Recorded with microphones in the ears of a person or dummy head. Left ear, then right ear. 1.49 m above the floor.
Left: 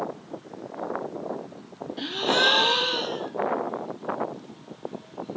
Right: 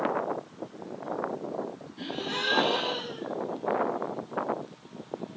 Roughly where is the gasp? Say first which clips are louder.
Left 10 dB; left.